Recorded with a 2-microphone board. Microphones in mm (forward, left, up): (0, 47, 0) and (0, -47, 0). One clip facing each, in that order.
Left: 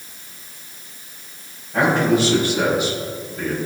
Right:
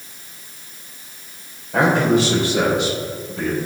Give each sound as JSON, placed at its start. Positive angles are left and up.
{"t": 1.7, "sound": "a man speaking", "side_deg": -85, "distance_m": 3.5}